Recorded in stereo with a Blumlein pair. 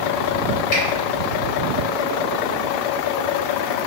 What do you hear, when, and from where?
0.7 s a finger snap: 45° left, 1.7 m